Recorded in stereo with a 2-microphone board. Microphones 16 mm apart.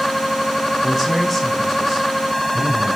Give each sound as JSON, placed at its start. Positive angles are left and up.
{"t": 0.8, "sound": "a man speaking", "side_deg": 10, "distance_m": 3.0}